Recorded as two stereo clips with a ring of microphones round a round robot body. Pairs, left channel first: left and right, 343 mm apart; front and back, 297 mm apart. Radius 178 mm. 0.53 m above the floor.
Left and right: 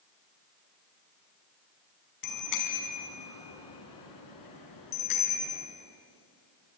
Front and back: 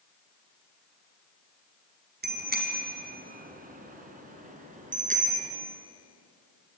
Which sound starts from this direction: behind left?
A bicycle bell, at 2.2 s.